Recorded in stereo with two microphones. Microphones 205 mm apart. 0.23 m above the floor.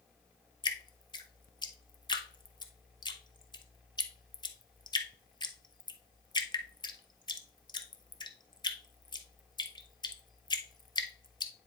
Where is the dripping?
20° left (ahead or behind), 0.8 m.